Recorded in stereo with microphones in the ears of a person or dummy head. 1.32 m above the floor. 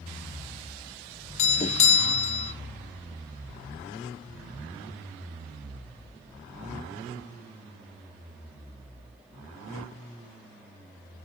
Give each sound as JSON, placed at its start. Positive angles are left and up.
{"t": 1.4, "sound": "a doorbell", "side_deg": 25, "distance_m": 0.8}